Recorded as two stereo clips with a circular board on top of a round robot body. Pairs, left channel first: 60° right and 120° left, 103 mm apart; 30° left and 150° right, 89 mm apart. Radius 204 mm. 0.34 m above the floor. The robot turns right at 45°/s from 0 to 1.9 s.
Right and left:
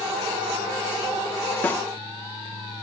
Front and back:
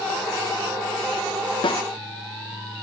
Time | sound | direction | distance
1.6 | a snare drum | 10° left | 1.4 m